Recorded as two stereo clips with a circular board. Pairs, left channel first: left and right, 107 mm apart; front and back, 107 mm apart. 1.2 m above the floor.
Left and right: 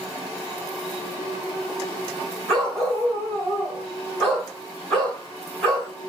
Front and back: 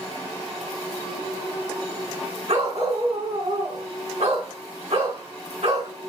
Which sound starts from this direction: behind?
A dog barking, at 2.5 s.